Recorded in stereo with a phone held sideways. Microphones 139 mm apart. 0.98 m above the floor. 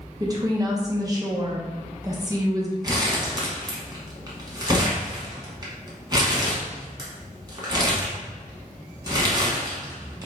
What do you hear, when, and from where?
0.2 s a woman speaking: 25° right (ahead or behind), 0.9 m
2.8 s crumpling: 30° right (ahead or behind), 1.3 m